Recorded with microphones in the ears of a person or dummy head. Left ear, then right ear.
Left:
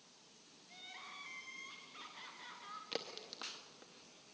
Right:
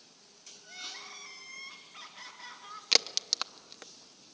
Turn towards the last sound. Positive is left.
turn(degrees=-50)  # may be behind; listen again after turning